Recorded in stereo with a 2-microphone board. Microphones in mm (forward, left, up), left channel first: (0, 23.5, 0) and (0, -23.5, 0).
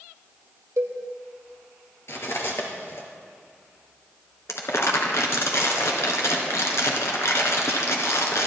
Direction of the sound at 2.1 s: 60° left (ahead or behind).